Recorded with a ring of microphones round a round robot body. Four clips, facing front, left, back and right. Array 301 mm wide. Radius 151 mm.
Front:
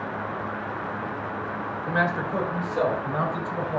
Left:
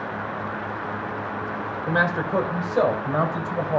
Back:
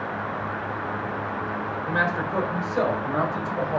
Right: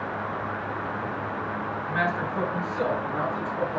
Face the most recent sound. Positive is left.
turn(degrees=100)